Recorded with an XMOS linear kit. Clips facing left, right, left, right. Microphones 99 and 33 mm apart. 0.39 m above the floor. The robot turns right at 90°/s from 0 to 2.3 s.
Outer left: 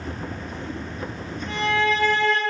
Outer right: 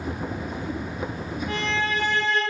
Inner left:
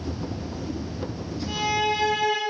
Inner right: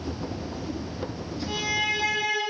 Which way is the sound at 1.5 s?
10° right.